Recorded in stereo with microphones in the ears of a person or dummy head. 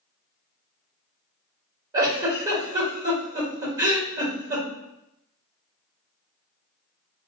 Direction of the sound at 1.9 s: 25° right (ahead or behind).